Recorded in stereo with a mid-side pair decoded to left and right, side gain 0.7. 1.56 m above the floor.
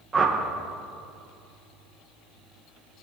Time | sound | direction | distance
0.1 | a whoosh | 20° right | 1.7 m